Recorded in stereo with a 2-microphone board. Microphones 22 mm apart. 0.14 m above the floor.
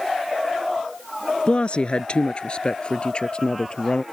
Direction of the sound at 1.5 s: 50° left (ahead or behind).